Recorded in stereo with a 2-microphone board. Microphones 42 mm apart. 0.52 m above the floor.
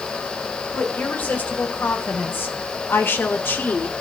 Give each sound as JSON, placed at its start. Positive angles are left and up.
{"t": 0.7, "sound": "a woman speaking", "side_deg": 45, "distance_m": 3.0}